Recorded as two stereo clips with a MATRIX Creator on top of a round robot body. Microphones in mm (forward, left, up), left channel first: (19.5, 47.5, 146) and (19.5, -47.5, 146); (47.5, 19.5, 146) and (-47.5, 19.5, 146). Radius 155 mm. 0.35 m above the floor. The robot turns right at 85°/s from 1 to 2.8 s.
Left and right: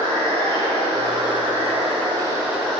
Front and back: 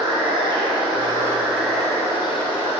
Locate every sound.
0.0 s running water: 145° right, 2.5 m; by 2.8 s 10° left, 2.5 m